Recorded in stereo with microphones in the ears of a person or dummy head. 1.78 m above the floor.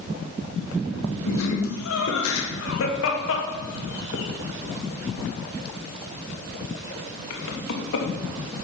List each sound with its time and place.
1.3 s laughter: 85° left, 2.0 m